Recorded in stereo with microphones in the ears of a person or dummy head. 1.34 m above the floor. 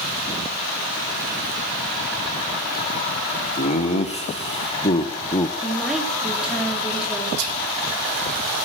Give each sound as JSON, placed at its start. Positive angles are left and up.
{"t": 3.6, "sound": "laughter", "side_deg": 35, "distance_m": 1.7}
{"t": 5.6, "sound": "a woman speaking", "side_deg": -5, "distance_m": 2.5}
{"t": 7.4, "sound": "whispering", "side_deg": -75, "distance_m": 2.0}